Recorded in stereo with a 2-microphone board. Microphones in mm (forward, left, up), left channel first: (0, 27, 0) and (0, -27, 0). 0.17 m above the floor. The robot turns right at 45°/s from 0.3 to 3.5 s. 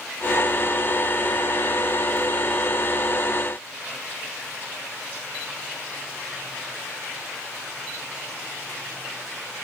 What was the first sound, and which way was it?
Only background noise.